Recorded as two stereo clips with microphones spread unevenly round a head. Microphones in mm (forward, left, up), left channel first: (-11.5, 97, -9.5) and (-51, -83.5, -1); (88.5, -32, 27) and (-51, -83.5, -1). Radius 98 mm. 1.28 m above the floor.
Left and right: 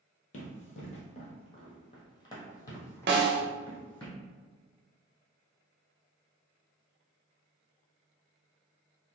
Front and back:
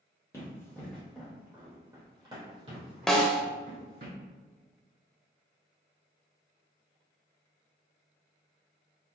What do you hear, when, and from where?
0.3 s running footsteps: 65° left, 1.5 m; by 4.1 s 165° left, 2 m
3.1 s a snare drum: 65° right, 0.7 m